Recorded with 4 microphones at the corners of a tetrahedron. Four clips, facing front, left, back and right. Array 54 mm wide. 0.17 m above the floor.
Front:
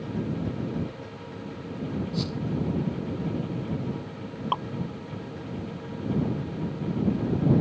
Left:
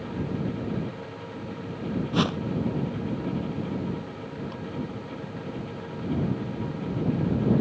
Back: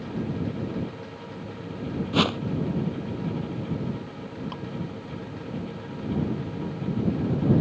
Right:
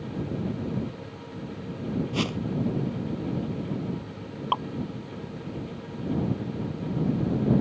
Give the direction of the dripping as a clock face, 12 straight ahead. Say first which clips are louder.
Right 11 dB, front 9 dB; 2 o'clock.